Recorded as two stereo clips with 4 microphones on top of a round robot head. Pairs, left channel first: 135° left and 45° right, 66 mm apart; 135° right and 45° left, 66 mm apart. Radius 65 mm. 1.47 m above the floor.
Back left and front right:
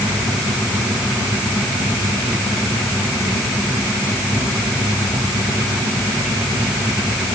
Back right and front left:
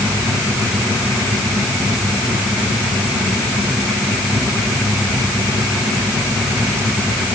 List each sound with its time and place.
Only background noise.